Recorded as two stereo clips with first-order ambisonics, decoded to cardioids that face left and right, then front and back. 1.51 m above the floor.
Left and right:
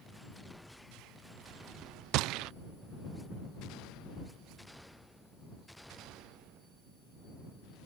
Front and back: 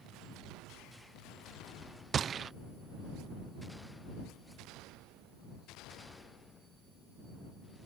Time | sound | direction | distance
2.1 | a gunshot | 115° right | ?